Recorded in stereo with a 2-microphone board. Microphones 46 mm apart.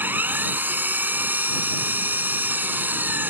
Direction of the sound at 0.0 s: 45° right (ahead or behind).